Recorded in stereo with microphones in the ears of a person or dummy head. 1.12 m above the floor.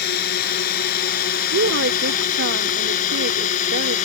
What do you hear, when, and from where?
0.0 s a drone: 60° left (ahead or behind); by 4.1 s 45° left (ahead or behind)
1.5 s a woman speaking: 65° right (ahead or behind)